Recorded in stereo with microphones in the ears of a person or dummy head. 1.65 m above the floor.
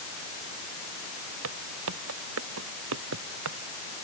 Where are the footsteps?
70° right (ahead or behind).